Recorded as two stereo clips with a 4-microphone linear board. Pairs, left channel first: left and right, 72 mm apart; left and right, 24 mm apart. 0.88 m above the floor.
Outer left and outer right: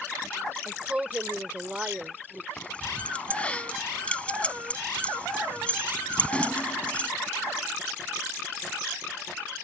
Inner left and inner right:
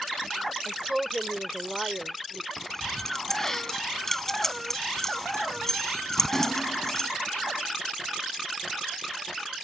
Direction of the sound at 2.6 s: 15° left (ahead or behind).